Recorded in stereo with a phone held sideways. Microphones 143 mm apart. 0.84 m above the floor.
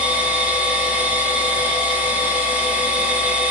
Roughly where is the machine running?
Centre.